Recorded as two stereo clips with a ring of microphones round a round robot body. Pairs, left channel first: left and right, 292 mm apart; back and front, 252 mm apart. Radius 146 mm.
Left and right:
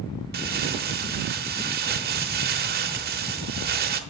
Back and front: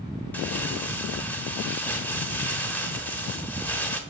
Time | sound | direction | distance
0.3 | crumpling | 100° right | 0.9 m